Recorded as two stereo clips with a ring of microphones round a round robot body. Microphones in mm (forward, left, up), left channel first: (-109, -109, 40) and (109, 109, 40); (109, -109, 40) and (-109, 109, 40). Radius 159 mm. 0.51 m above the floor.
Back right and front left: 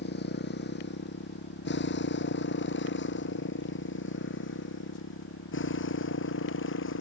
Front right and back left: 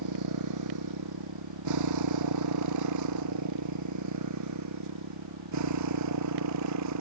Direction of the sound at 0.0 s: 165° left.